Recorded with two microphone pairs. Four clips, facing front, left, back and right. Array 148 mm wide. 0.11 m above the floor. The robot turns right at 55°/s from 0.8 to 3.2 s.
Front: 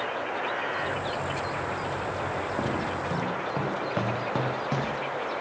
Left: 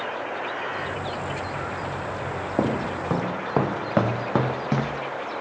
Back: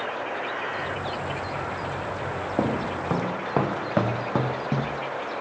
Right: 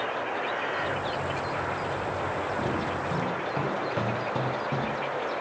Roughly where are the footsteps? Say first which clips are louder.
Left 4 dB, back 7 dB; behind left.